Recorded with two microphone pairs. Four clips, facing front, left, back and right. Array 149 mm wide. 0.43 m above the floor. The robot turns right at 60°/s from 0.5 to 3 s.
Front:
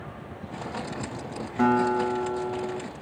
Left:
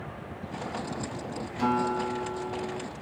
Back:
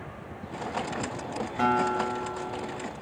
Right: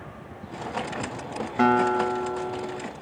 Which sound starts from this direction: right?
A guitar, at 1.6 s.